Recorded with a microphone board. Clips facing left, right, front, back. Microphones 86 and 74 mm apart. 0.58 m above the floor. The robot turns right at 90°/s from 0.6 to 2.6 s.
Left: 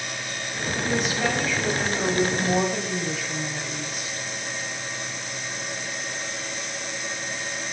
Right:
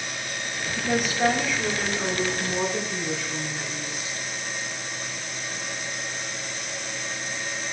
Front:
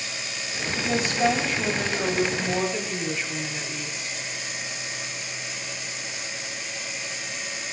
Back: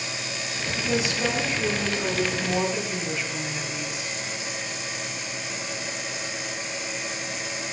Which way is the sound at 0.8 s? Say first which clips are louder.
Right 1 dB, front 2 dB; 70° right.